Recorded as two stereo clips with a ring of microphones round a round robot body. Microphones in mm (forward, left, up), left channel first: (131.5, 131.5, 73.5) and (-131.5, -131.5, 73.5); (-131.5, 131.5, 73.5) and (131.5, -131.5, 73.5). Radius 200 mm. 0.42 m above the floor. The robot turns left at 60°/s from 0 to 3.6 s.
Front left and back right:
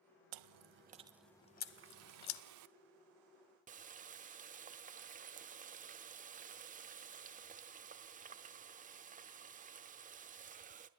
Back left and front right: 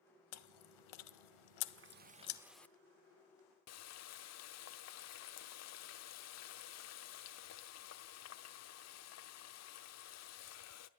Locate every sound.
0.3 s chewing: 170° right, 0.8 m; by 2.4 s 65° left, 0.8 m
1.7 s a running tap: 80° right, 0.9 m; by 10.9 s 165° left, 0.9 m